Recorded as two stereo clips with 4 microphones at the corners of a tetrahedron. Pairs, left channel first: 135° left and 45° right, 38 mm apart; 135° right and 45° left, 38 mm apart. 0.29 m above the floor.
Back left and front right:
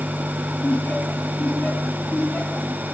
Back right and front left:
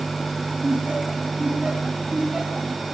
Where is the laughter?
95° left, 2.5 m.